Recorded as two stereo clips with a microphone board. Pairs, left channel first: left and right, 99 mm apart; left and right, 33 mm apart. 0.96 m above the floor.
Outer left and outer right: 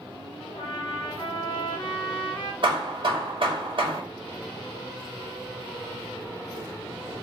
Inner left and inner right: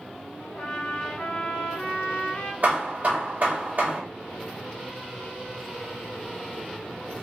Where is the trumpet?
50° left (ahead or behind), 1.2 m.